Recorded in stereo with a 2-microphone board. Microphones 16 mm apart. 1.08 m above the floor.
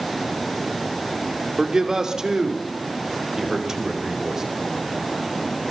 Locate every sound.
1.6 s a man speaking: 55° right (ahead or behind), 2.5 m; by 4.4 s 40° right (ahead or behind), 5 m